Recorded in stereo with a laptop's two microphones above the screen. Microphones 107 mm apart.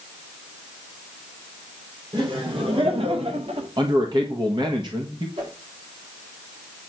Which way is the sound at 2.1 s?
55° right (ahead or behind).